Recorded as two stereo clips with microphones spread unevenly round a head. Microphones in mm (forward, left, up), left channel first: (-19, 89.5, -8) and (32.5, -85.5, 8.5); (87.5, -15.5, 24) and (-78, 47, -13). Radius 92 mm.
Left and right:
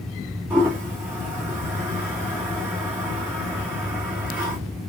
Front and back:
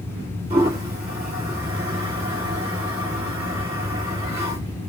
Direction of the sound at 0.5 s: 145° right.